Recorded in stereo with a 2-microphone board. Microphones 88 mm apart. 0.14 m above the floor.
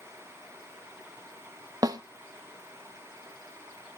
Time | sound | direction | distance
1.8 | a snare drum | 45° right (ahead or behind) | 1.0 m